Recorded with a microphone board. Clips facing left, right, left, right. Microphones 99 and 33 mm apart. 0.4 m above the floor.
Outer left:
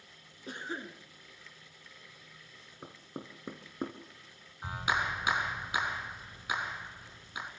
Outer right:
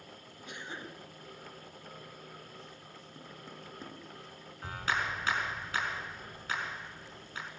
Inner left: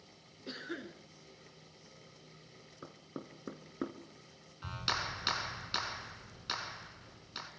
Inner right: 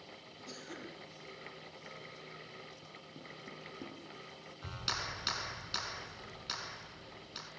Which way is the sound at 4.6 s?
15° left (ahead or behind).